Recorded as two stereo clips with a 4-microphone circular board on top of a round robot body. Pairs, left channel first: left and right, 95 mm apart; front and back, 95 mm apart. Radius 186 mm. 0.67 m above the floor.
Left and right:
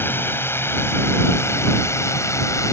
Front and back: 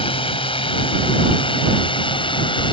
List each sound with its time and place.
0.0 s a drone: 20° left; by 2.7 s 30° left